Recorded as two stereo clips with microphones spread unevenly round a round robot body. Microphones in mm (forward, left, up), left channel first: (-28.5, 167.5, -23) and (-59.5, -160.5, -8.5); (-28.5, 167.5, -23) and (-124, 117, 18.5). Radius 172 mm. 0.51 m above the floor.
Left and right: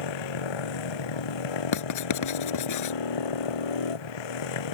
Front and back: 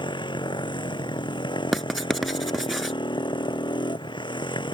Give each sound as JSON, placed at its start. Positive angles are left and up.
{"t": 0.0, "sound": "a motorcycle", "azimuth_deg": 75}
{"t": 1.7, "sound": "writing", "azimuth_deg": 120}